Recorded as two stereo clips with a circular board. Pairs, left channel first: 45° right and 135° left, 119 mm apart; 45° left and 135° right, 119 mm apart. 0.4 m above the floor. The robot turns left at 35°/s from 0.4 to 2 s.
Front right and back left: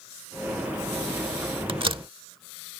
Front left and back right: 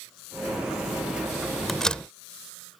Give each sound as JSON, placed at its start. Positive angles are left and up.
{"t": 1.7, "sound": "a door slam", "azimuth_deg": 130}